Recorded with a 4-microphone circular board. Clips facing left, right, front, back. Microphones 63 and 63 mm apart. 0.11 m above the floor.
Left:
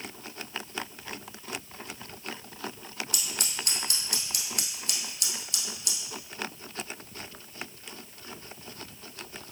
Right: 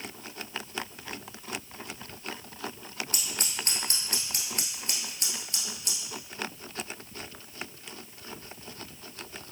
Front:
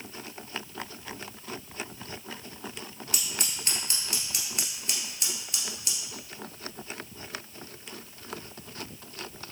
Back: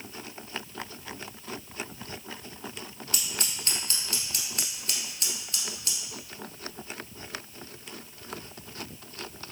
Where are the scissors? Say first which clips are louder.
Even, even; 65° right, 1.6 m.